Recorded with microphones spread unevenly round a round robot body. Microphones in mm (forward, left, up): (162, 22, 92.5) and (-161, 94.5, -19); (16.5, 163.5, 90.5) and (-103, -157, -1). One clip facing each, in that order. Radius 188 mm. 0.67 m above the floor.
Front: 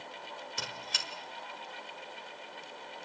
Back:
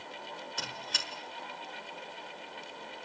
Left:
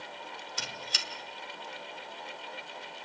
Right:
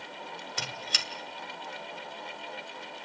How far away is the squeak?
About 2 m.